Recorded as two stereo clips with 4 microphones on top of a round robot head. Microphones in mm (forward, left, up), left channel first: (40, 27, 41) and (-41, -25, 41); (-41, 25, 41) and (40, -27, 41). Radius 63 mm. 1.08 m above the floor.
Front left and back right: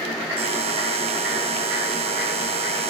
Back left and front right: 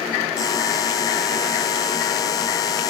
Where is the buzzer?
160° right.